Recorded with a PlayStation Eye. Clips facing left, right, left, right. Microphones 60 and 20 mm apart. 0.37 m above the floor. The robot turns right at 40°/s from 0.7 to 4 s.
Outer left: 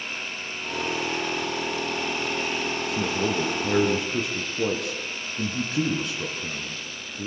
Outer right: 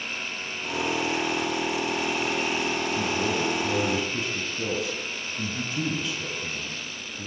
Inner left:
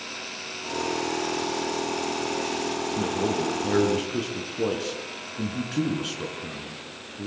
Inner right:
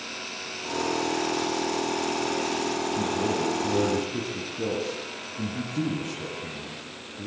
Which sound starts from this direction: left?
A man speaking, at 2.9 s.